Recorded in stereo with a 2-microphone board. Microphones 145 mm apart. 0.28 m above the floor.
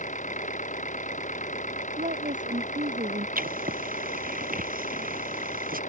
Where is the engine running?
60° left (ahead or behind).